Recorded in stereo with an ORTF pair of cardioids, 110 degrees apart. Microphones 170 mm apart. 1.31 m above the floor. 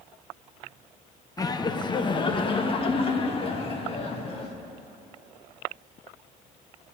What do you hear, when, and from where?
1.4 s laughter: 20° left, 1.1 m; by 4.6 s 35° left, 3 m